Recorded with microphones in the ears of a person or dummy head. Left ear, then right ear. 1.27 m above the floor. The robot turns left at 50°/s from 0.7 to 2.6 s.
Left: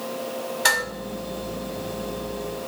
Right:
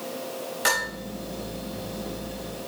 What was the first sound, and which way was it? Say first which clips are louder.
Dishes clattering: left 3 dB; 20° right (ahead or behind).